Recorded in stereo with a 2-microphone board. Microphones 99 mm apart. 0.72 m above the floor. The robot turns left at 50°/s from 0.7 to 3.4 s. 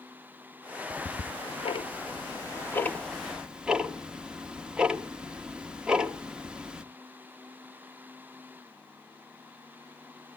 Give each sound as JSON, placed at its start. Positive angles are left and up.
{"t": 0.9, "sound": "ticking", "side_deg": 60, "distance_m": 0.9}